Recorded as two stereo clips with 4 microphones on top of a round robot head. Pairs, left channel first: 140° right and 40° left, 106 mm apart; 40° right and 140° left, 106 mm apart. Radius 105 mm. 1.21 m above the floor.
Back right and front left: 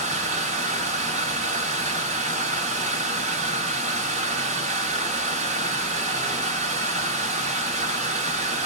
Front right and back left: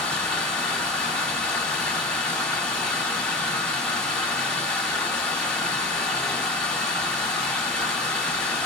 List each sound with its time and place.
0.0 s running water: 45° left, 1.2 m